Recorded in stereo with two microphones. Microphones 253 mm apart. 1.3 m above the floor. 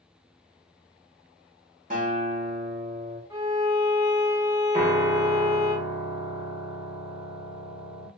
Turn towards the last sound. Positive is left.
turn(degrees=-30)  # may be behind; listen again after turning